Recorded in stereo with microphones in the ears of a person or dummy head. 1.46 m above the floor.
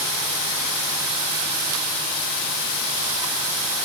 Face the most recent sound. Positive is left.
No sound to turn to.